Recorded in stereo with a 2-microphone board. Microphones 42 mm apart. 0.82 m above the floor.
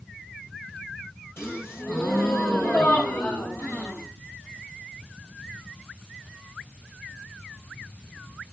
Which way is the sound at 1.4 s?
80° left.